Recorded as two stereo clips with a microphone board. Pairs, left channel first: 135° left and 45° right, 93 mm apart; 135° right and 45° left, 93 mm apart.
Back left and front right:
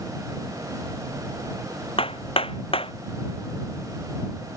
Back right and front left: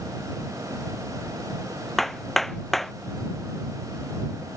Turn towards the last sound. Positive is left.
turn(degrees=135)